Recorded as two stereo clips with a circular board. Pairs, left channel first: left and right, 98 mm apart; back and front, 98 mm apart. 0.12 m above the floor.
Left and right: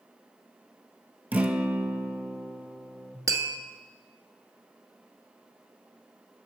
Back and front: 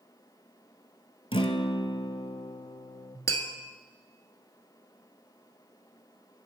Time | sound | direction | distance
1.3 | a guitar | 165° right | 0.8 m
3.3 | tapping | 135° right | 1.3 m